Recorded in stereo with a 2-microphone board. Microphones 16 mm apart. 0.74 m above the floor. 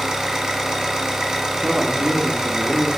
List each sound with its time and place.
0.0 s an engine running: 40° right (ahead or behind), 1.0 m
1.6 s a man speaking: 45° right (ahead or behind), 0.5 m